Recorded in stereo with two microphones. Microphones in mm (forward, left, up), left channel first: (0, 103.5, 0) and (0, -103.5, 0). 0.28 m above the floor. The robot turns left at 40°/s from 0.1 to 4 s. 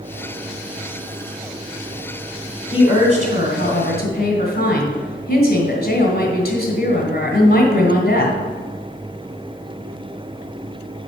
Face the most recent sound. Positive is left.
turn(degrees=95)